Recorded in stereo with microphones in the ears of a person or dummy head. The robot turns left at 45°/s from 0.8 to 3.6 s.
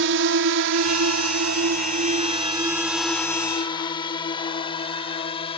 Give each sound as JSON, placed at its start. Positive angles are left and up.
{"t": 0.0, "sound": "a drone", "side_deg": -65}